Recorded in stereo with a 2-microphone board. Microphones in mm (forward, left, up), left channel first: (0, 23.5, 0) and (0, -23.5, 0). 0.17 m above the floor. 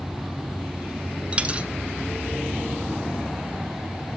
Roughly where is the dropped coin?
Right.